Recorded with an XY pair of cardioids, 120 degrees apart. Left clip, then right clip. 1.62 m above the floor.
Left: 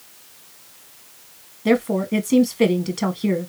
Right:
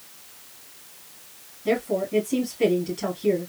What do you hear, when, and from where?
1.6 s a woman speaking: 60° left, 1.6 m